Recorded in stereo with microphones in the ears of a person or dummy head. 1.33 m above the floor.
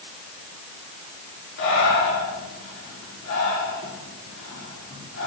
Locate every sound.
1.6 s breathing: 80° left, 4 m